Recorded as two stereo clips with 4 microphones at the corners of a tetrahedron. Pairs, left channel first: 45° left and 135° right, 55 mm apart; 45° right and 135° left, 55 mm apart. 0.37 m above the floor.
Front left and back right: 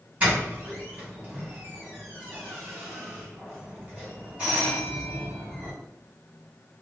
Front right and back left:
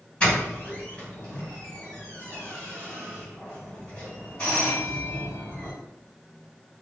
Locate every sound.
0.2 s a doorbell: 90° right, 1.9 m